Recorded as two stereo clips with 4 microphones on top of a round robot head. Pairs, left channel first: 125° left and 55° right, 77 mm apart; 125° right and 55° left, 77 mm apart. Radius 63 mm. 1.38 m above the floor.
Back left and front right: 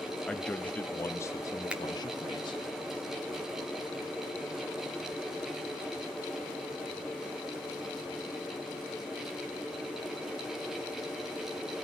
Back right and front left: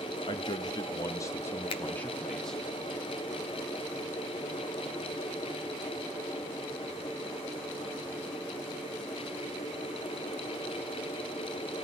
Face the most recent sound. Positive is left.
turn(degrees=-130)